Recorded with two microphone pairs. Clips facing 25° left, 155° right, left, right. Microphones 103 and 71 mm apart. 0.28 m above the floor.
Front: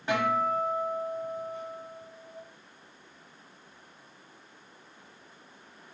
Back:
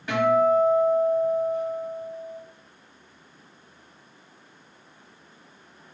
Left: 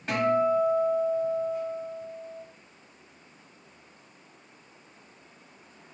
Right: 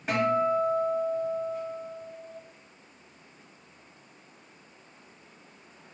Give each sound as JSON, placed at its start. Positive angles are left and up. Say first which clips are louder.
{"t": 0.1, "sound": "a guitar", "louder": "back 8 dB, left 1 dB", "azimuth_deg": -15, "distance_m": 1.4}